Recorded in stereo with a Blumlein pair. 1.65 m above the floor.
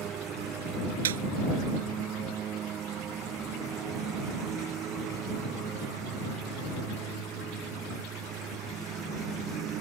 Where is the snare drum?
60° right.